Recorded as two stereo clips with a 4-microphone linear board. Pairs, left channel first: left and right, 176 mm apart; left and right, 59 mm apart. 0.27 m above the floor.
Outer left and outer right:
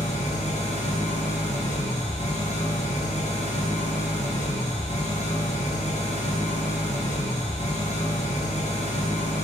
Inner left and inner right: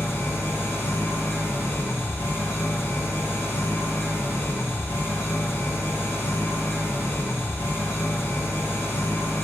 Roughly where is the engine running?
Left.